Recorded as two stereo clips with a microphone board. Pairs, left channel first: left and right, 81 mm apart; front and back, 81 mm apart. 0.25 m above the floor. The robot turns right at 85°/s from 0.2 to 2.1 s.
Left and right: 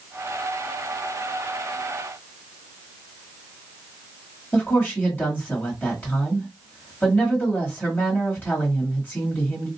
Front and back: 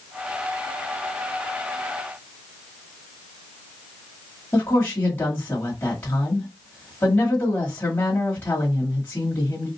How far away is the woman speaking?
About 1.4 m.